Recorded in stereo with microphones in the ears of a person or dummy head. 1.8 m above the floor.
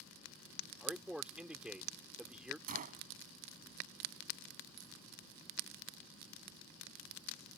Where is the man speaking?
10° right (ahead or behind).